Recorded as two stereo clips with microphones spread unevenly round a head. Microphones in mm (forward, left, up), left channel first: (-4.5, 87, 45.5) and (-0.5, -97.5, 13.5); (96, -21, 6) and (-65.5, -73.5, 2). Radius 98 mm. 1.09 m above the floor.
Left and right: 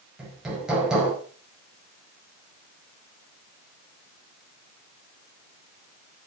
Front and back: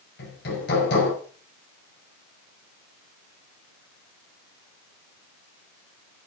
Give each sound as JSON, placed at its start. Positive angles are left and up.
{"t": 0.2, "sound": "hammering", "azimuth_deg": 0, "distance_m": 5.0}